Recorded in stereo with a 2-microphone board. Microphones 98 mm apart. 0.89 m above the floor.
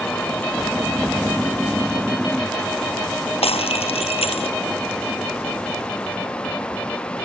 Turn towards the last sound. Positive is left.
turn(degrees=80)